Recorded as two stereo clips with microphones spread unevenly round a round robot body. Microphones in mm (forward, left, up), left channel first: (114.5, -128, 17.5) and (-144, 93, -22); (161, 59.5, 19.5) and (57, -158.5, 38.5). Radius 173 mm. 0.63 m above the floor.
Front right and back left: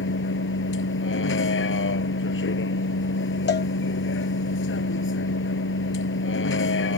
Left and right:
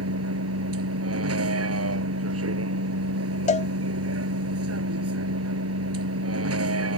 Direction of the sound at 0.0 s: 95° right.